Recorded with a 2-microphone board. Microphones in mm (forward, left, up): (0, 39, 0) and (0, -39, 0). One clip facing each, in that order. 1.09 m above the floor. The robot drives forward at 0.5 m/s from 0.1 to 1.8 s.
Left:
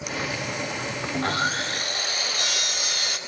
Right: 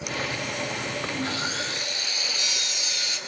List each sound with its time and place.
1.1 s sawing: 55° left (ahead or behind), 3.5 m; by 3.2 s 60° left (ahead or behind), 3 m